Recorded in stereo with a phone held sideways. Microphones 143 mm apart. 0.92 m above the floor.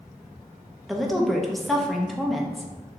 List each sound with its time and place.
0.9 s a woman speaking: centre (ahead or behind), 0.5 m